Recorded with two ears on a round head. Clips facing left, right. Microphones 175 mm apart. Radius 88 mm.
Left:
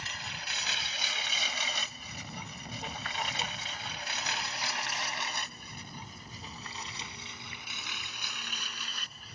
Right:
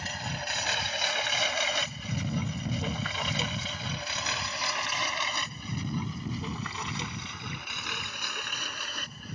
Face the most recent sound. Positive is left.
turn(degrees=-40)  # may be behind; listen again after turning